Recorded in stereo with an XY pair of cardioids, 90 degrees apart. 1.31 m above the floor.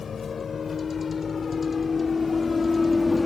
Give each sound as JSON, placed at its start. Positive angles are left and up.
{"t": 0.0, "sound": "a vehicle", "azimuth_deg": 45}